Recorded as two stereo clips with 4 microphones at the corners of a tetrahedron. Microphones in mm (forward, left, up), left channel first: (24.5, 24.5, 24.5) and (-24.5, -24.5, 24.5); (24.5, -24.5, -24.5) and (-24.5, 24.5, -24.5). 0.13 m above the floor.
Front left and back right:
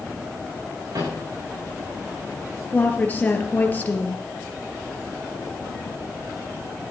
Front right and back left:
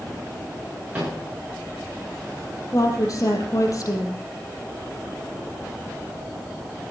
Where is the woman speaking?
20° right, 3 m.